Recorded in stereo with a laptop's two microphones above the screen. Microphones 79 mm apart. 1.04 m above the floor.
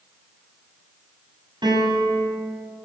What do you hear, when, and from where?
1.6 s a piano: 75° right (ahead or behind), 6.5 m